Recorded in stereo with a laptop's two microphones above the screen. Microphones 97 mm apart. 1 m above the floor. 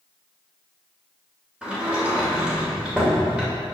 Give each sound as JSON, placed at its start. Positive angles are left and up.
{"t": 1.6, "sound": "a sliding door", "side_deg": -10, "distance_m": 2.5}